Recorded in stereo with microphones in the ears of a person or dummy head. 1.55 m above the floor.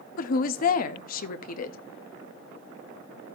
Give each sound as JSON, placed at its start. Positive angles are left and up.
{"t": 0.2, "sound": "a woman speaking", "side_deg": 45, "distance_m": 0.6}